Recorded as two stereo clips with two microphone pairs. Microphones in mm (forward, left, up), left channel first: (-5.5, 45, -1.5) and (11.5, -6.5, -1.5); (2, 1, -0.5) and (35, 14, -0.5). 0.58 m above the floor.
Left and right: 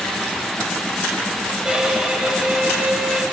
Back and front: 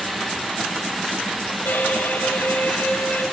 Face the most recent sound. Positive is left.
turn(degrees=-150)